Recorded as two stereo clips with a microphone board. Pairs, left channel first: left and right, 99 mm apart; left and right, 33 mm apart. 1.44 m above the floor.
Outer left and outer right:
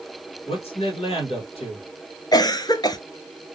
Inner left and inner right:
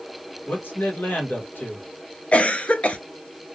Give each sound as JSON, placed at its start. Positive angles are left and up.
{"t": 0.5, "sound": "a man speaking", "side_deg": 75, "distance_m": 1.8}
{"t": 2.3, "sound": "a cough", "side_deg": 40, "distance_m": 0.5}